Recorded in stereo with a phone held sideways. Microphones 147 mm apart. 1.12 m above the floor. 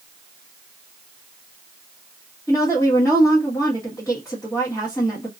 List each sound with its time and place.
2.5 s a woman speaking: 15° left (ahead or behind), 1.2 m